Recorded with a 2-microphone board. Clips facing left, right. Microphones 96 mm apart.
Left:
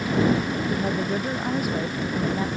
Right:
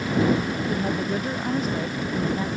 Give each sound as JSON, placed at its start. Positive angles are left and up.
{"t": 0.7, "sound": "a woman speaking", "side_deg": 10}